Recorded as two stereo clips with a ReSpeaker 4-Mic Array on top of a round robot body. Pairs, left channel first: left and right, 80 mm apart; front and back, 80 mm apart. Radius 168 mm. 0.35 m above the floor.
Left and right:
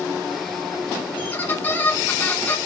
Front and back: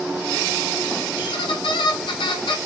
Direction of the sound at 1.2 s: 20° left.